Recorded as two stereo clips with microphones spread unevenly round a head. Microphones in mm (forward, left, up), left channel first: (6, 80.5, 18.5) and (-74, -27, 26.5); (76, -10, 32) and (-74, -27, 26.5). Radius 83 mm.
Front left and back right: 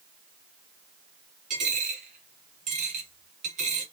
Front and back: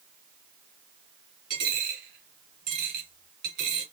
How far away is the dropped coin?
About 2.5 m.